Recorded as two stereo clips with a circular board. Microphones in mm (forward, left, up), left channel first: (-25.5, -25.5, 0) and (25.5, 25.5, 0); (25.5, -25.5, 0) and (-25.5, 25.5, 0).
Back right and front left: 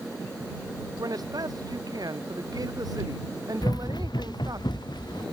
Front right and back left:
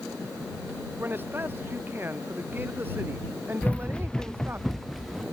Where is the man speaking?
75° left.